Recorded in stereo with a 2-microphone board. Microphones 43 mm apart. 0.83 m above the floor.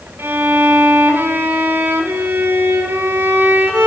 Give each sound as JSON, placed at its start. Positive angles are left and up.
{"t": 0.2, "sound": "a violin", "side_deg": -75, "distance_m": 1.2}